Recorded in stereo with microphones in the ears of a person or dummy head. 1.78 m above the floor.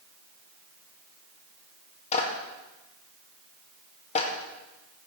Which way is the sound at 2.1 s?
40° left (ahead or behind).